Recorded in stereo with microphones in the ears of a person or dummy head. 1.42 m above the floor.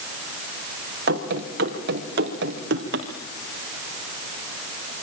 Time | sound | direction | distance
1.1 | running footsteps | 50° right (ahead or behind) | 5 m